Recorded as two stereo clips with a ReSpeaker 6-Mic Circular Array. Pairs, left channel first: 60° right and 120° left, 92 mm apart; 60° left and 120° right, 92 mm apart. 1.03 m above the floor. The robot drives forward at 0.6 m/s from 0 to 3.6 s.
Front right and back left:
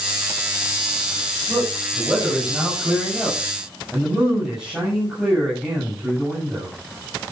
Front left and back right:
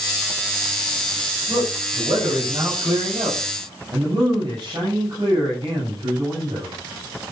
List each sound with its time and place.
1.5 s a man speaking: 150° right, 6.5 m; by 6.7 s 155° right, 7.5 m